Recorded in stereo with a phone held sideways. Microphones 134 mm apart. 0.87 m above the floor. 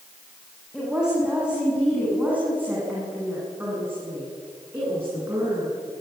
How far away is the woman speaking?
About 7.5 m.